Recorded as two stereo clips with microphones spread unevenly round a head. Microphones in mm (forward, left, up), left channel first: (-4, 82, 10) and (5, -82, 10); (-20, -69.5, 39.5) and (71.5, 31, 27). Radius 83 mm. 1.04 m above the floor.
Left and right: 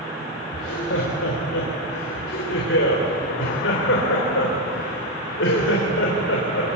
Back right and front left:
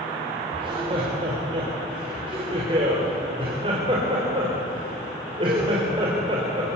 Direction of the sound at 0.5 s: 110° left.